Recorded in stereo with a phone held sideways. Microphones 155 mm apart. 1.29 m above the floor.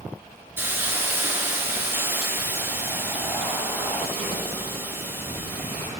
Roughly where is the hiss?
Centre.